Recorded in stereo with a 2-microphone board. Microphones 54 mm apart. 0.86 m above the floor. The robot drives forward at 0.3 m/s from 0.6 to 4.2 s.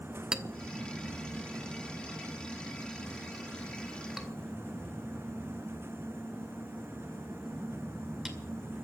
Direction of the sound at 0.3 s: 15° right (ahead or behind).